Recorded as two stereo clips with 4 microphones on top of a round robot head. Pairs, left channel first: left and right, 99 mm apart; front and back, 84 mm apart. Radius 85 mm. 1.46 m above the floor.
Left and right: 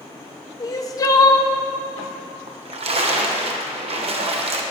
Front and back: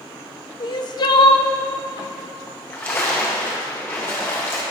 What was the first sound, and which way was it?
Crying, 35° left.